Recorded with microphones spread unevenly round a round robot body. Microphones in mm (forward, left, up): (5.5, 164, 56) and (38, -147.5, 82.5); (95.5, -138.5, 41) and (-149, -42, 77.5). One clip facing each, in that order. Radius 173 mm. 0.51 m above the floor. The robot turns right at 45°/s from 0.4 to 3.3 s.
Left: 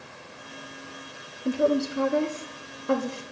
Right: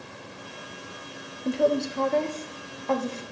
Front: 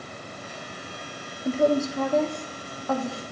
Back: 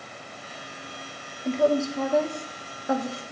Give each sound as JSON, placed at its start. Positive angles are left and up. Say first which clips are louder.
{"t": 1.4, "sound": "a woman speaking", "louder": "left 1 dB, even", "azimuth_deg": 25, "distance_m": 0.7}